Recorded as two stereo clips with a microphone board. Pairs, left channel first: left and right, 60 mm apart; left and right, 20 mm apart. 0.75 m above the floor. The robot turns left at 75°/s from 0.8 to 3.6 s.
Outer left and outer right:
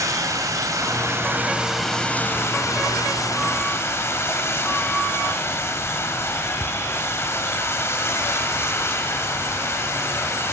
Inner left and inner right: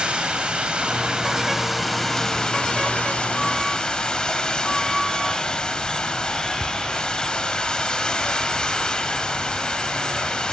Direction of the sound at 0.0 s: 105° right.